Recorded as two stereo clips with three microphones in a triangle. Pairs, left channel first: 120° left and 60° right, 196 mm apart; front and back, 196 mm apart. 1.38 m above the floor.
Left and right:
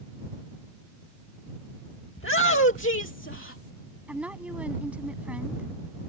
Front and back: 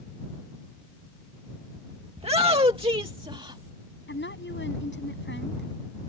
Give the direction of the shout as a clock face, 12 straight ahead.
8 o'clock.